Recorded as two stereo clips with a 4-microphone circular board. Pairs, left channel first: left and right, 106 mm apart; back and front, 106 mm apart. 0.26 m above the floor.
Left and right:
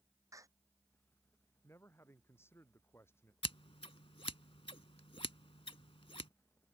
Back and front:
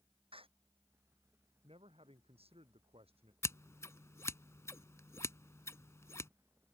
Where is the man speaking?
25° left.